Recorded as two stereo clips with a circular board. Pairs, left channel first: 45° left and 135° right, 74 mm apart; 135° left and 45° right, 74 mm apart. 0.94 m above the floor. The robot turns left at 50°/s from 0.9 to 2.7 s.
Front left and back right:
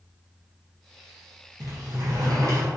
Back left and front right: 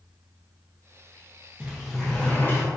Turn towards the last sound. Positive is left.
turn(degrees=-175)